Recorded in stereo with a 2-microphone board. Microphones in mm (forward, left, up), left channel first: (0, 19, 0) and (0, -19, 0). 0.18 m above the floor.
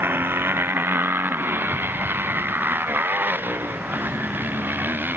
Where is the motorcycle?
70° right (ahead or behind); by 5.2 s 55° right (ahead or behind).